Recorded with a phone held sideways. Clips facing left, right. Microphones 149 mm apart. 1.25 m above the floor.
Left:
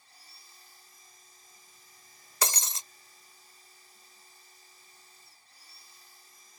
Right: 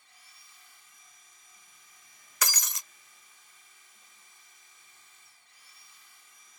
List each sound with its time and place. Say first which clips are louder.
0.0 s a machine running: left 2 dB; 40° left (ahead or behind)
2.4 s breaking glass: left 3 dB; 30° left (ahead or behind)